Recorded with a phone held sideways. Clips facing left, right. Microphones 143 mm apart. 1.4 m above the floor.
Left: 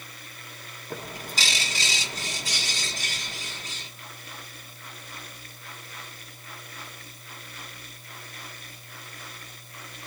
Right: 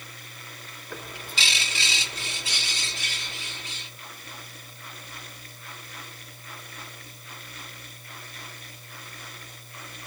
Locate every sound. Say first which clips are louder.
0.9 s a bird: left 3 dB; 40° left (ahead or behind), 1.0 m